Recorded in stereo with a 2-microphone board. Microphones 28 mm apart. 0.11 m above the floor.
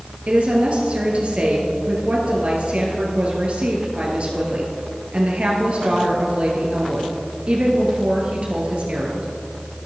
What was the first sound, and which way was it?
A woman speaking, 45° right (ahead or behind).